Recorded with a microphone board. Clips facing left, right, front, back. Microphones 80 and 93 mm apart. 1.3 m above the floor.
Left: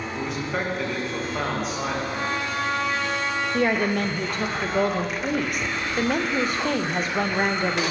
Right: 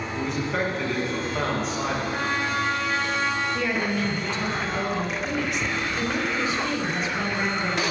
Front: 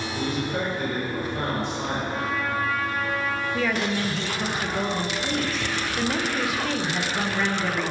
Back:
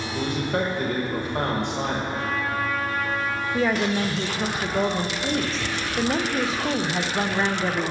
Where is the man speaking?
Straight behind, 1.8 m.